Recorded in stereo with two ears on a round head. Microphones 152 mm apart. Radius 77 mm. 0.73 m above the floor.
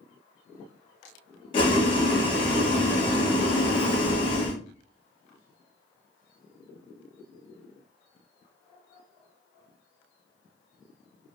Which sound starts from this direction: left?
Boiling, at 1.5 s.